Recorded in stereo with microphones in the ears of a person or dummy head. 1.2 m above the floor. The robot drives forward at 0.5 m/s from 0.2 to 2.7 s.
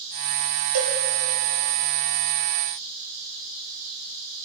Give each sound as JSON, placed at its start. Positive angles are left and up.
{"t": 0.7, "sound": "a cowbell", "side_deg": -80, "distance_m": 7.5}